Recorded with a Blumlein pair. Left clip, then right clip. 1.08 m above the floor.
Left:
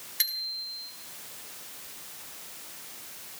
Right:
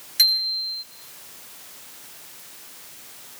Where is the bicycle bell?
50° right, 8 m.